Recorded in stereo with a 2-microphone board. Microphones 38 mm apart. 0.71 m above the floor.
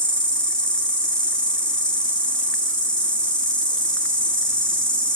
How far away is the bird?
No bird in this recording.